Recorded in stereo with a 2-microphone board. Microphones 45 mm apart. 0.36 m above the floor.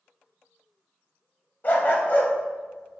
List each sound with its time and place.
1.6 s a dog barking: 40° left (ahead or behind), 0.8 m